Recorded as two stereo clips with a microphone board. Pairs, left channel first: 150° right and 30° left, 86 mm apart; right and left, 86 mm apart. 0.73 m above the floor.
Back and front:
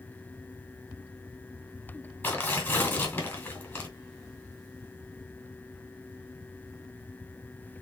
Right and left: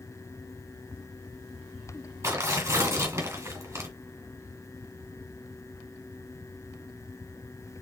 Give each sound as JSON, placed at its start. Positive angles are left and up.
{"t": 2.2, "sound": "tearing paper", "azimuth_deg": 145, "distance_m": 2.5}